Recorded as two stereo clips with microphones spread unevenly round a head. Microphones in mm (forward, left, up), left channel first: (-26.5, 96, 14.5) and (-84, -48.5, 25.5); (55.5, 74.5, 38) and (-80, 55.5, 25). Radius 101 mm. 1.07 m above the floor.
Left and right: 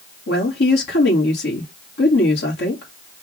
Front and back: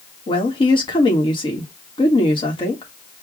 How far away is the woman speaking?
About 1.5 m.